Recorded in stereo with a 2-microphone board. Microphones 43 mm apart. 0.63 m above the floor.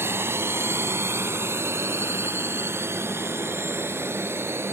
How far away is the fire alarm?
I don't hear a fire alarm.